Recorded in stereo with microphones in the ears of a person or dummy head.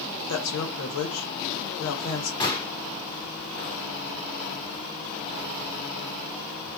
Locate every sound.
0.3 s a woman speaking: 80° left, 1.0 m
2.4 s a gunshot: 30° left (ahead or behind), 0.6 m